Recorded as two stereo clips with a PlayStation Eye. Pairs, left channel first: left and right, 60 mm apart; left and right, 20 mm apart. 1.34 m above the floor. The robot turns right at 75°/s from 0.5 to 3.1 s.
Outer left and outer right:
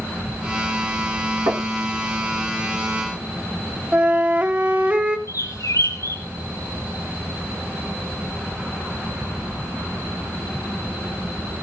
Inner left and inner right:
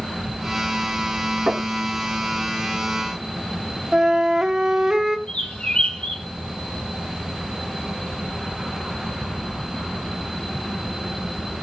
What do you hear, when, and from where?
1.5 s knocking: 55° right (ahead or behind), 4 m; by 1.7 s 75° right (ahead or behind), 4 m
3.9 s a flute: 25° right (ahead or behind), 1.0 m
5.3 s a bird: 70° left (ahead or behind), 3.5 m